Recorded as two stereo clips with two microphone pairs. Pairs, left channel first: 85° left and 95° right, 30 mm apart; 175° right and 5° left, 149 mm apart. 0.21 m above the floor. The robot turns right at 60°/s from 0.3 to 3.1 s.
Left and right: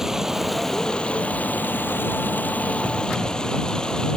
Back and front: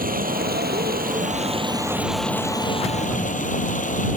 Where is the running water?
15° right; by 4.2 s 150° left.